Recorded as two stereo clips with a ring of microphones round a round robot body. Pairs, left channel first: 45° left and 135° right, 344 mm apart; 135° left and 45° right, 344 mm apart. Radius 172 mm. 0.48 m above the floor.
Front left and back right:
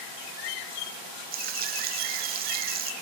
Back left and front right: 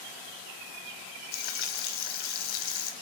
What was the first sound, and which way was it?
Frying, 160° left.